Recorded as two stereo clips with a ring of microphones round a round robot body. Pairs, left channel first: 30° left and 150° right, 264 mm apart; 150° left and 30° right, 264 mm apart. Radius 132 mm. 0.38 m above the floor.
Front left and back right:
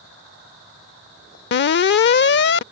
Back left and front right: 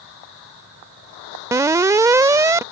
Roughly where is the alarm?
Ahead left.